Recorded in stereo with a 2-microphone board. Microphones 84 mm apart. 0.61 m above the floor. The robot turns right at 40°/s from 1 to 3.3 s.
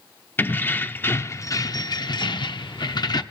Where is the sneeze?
I don't hear a sneeze.